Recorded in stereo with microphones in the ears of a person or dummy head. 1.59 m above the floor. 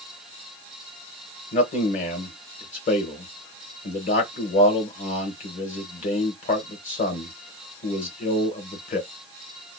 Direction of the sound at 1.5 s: 40° left (ahead or behind).